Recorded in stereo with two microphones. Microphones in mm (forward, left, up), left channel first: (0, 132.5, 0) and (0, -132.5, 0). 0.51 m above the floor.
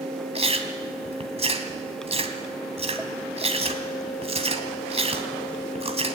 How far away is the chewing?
About 2 m.